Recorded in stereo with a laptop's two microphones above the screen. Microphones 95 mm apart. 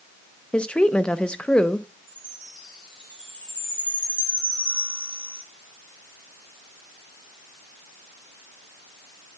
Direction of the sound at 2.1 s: 55° right (ahead or behind).